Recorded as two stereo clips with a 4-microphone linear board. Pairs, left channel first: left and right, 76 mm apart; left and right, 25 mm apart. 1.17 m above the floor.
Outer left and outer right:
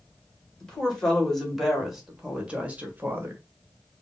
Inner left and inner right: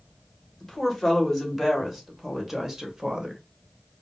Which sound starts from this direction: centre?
A woman speaking, at 0.6 s.